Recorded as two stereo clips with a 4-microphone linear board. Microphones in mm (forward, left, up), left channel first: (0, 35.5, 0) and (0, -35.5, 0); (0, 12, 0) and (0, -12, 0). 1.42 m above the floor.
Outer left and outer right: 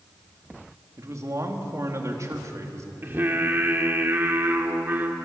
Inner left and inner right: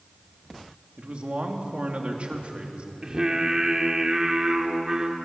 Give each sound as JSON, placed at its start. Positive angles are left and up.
{"t": 1.0, "sound": "a man speaking", "side_deg": -50, "distance_m": 3.0}
{"t": 3.0, "sound": "singing", "side_deg": -30, "distance_m": 1.9}